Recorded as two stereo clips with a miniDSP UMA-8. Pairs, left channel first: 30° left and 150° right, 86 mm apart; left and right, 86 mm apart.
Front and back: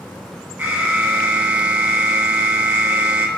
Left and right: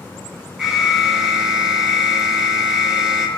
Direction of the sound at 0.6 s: 170° right.